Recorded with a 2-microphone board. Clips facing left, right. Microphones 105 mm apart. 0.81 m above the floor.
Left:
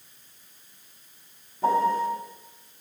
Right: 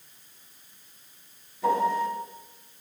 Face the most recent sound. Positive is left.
turn(degrees=45)  # may be behind; listen again after turning